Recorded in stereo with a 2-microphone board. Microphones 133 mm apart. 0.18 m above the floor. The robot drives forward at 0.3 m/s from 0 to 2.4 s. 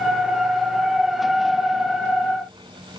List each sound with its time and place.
Only background noise.